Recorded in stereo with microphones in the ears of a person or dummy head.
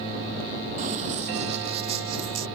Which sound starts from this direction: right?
Running footsteps, at 0.8 s.